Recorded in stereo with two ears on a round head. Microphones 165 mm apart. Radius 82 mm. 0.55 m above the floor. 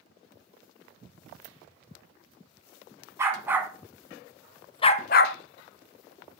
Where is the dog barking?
15° right (ahead or behind), 1.6 m; by 5.4 s 60° left (ahead or behind), 0.6 m.